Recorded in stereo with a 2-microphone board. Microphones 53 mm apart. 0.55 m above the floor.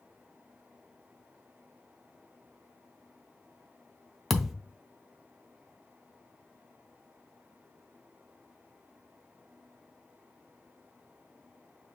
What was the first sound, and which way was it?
A thud, centre (ahead or behind).